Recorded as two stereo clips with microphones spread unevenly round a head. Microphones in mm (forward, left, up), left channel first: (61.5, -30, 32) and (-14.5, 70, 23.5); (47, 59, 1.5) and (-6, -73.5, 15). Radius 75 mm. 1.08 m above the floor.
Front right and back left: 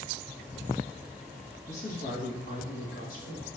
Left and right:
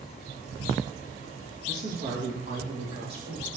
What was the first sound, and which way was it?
A man speaking, 95° right.